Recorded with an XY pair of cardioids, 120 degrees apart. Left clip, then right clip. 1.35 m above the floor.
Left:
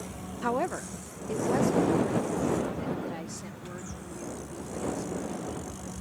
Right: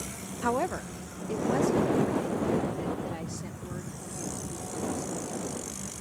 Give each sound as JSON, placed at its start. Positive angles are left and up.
{"t": 0.4, "sound": "a woman speaking", "azimuth_deg": -5}